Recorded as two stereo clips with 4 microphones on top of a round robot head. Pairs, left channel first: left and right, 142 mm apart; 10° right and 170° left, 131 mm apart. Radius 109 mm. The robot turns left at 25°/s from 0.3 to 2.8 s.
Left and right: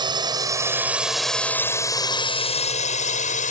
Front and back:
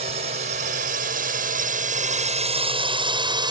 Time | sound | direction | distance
0.0 | a drone | 145° right | ?